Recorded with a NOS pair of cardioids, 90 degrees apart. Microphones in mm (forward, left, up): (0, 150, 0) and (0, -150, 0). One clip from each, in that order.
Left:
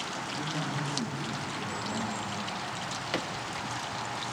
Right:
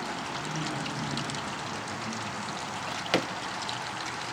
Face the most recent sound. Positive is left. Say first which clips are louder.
# right 4 dB
turn(degrees=-35)